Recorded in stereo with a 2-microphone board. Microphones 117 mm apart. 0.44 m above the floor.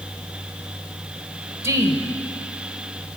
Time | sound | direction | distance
1.6 | a woman speaking | 25° right (ahead or behind) | 2 m